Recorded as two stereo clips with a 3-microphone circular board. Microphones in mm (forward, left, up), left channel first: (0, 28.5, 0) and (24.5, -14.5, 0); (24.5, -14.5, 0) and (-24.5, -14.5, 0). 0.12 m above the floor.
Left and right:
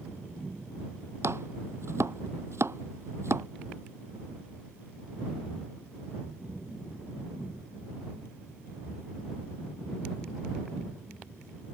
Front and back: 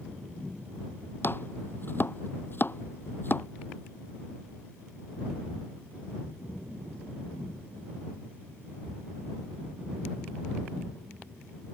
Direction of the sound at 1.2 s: 40° right.